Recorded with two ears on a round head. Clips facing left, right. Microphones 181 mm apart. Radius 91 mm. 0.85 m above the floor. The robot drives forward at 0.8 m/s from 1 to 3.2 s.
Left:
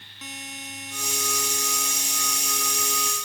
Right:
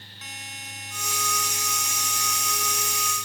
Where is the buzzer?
85° left; by 3.1 s 80° left.